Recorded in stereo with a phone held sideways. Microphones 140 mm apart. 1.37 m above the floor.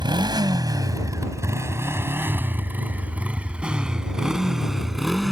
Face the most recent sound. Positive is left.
turn(degrees=0)  # may be behind; listen again after turning